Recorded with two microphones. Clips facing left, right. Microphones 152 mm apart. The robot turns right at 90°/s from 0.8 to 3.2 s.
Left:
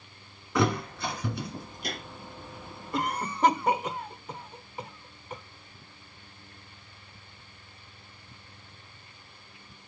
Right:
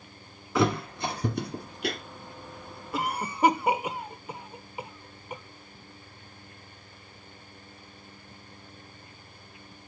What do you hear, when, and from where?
0.6 s a thud: centre (ahead or behind), 1.8 m; by 2.0 s 75° right (ahead or behind), 1.8 m
2.9 s a cough: 5° right (ahead or behind), 0.8 m; by 5.4 s 10° right (ahead or behind), 0.8 m